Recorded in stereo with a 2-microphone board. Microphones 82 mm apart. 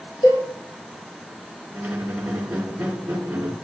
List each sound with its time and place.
0.2 s a cowbell: 75° left (ahead or behind), 4.5 m
1.7 s a squeak: 15° right (ahead or behind), 1.3 m